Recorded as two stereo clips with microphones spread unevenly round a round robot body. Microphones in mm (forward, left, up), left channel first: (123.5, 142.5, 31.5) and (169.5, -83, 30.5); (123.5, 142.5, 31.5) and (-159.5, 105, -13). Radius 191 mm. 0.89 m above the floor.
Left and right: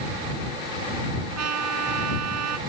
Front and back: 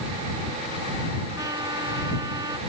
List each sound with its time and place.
1.4 s a trumpet: 90° right